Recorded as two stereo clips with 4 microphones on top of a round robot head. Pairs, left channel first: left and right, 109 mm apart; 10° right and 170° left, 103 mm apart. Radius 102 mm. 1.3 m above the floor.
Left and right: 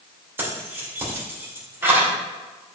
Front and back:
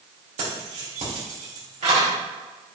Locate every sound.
0.4 s keys jangling: 160° right, 3 m